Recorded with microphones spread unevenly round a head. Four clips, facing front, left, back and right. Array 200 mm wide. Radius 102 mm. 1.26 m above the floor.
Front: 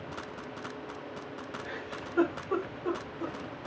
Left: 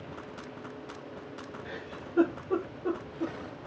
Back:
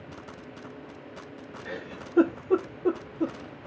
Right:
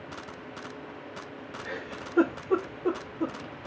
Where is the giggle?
170° right, 0.8 m.